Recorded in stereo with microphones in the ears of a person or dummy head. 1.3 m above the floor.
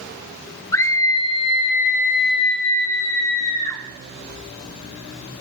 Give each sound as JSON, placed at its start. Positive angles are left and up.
{"t": 0.7, "sound": "a scream", "side_deg": 10, "distance_m": 2.0}